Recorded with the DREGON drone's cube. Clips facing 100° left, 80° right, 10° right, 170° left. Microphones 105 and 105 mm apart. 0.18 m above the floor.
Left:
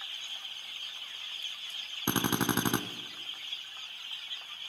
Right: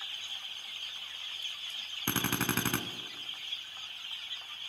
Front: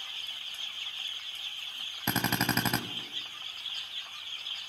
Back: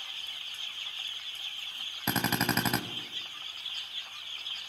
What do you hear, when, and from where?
2.1 s a drill: 80° left, 0.6 m